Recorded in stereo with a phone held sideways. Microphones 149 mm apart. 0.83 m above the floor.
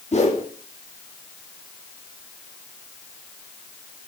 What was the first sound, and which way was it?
A whoosh, 50° left (ahead or behind).